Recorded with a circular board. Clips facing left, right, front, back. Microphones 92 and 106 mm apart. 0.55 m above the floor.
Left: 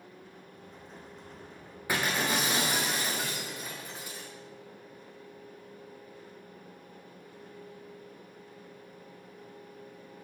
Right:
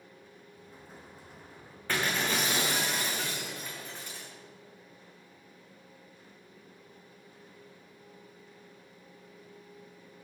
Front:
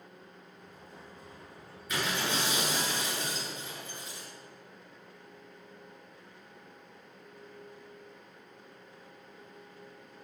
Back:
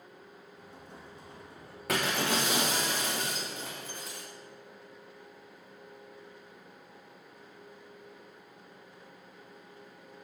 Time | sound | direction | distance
0.5 | an explosion | 175° right | 3.5 m
1.9 | breaking glass | 165° left | 5 m